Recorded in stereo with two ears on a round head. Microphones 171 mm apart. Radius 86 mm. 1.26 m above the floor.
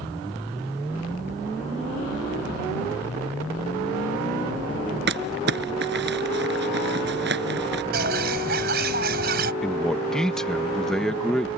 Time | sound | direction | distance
5.1 | crumpling | 60° right (ahead or behind) | ?
7.9 | a bird | 55° right (ahead or behind) | ?
9.6 | a man speaking | 5° left (ahead or behind) | ?